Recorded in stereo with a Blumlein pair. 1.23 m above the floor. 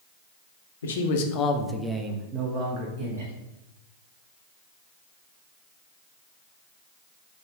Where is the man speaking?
65° left, 0.8 m; by 3.3 s 55° right, 1.5 m.